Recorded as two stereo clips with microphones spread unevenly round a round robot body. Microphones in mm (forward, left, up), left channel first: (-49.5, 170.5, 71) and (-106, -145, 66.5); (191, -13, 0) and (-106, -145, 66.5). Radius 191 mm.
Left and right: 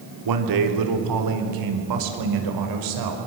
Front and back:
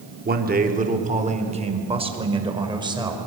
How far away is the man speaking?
About 3 m.